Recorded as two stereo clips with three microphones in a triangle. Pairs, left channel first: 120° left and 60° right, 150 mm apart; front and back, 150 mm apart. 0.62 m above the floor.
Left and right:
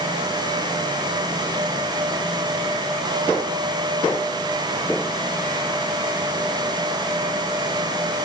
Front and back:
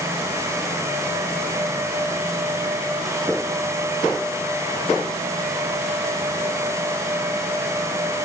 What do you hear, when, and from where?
Only background noise.